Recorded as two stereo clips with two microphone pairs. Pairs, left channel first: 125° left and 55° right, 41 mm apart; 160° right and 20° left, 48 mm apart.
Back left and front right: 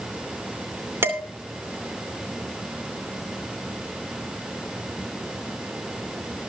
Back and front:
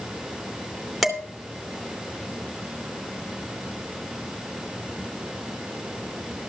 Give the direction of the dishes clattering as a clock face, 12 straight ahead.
2 o'clock.